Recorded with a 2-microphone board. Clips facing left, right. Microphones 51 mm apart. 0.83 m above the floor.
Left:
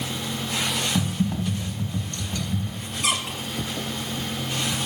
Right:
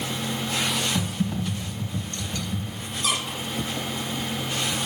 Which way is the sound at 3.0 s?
75° left (ahead or behind).